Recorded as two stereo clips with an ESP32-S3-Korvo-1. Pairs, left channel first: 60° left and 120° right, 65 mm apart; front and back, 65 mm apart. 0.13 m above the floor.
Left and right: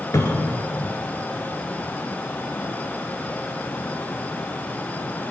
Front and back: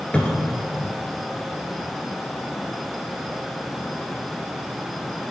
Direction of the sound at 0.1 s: 65° left.